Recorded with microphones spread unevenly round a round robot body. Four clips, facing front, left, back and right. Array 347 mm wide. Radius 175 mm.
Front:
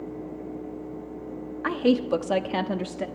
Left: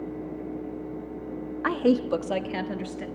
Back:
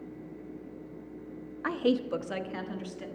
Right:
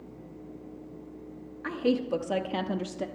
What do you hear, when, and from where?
1.6 s a woman speaking: 55° left, 1.0 m; by 3.1 s 15° right, 1.4 m